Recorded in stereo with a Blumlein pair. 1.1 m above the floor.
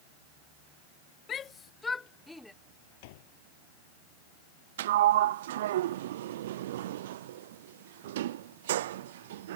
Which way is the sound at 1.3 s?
25° left.